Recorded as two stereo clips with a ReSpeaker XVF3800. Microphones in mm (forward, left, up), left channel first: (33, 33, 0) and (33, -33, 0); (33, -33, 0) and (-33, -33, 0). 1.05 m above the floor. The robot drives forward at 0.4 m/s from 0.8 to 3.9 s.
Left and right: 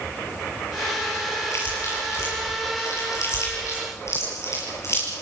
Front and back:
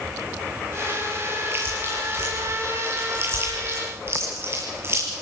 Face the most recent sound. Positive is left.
turn(degrees=130)